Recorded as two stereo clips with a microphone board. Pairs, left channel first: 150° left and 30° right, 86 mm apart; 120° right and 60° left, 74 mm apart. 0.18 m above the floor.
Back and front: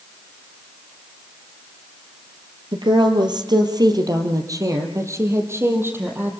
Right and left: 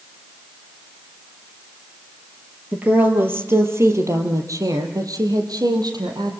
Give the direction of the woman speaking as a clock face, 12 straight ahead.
12 o'clock.